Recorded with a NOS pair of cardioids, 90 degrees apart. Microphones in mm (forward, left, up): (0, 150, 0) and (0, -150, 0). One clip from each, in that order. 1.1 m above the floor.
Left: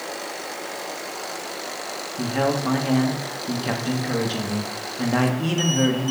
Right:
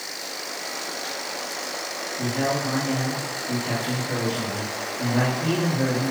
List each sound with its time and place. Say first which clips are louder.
2.2 s a man speaking: left 3 dB; 70° left, 1.3 m